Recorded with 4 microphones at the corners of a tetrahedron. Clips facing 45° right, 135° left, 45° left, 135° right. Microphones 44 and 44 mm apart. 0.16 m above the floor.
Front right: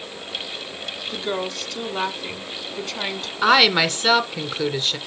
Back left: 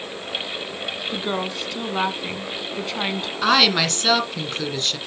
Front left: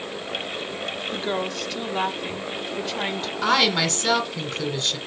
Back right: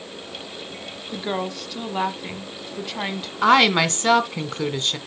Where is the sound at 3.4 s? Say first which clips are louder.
Front right 2 dB, back right 5 dB; 115° right, 1.6 m.